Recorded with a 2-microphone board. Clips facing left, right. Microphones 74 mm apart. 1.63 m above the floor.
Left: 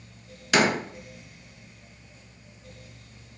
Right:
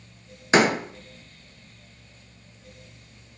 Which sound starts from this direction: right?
A door slam, at 0.5 s.